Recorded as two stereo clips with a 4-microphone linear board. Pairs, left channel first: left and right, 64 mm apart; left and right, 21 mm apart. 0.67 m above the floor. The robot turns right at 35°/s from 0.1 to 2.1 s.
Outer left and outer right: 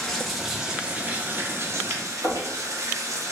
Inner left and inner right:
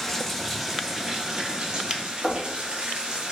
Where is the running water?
170° left, 0.7 m; by 3.3 s 120° right, 0.7 m.